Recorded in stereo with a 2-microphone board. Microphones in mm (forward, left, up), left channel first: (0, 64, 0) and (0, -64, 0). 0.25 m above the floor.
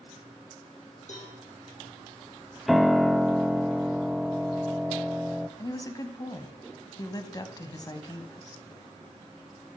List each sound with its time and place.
1.1 s a cowbell: 65° left (ahead or behind), 6 m
2.7 s a piano: centre (ahead or behind), 0.5 m
5.6 s a woman speaking: 30° left (ahead or behind), 1.7 m